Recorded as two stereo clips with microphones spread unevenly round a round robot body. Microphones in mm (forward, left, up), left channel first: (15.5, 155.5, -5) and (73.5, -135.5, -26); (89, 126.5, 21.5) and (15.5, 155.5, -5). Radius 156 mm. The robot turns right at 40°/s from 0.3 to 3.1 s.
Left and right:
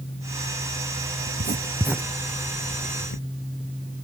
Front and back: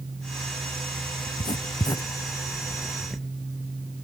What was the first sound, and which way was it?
Writing, 20° right.